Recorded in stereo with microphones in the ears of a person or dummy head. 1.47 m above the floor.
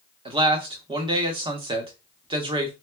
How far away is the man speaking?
About 0.7 m.